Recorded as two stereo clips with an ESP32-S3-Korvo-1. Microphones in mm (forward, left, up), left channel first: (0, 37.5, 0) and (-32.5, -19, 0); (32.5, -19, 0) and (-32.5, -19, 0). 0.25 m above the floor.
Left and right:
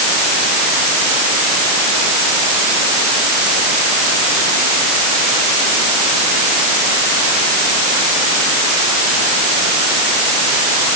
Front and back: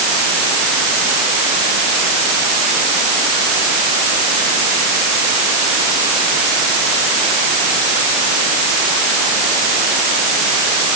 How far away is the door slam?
I don't hear a door slam.